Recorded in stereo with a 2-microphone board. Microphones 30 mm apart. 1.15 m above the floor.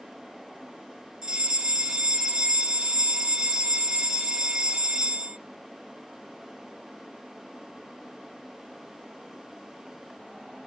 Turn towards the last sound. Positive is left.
turn(degrees=-20)  # may be behind; listen again after turning